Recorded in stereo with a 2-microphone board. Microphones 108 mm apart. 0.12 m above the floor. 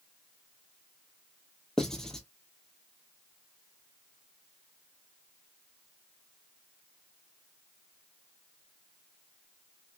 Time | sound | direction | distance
1.8 | writing | 5° left (ahead or behind) | 0.8 m